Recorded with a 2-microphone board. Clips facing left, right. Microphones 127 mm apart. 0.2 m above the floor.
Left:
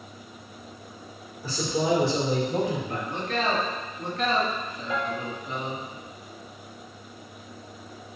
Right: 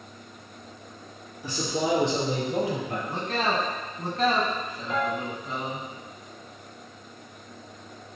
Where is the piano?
55° right (ahead or behind), 1.4 m.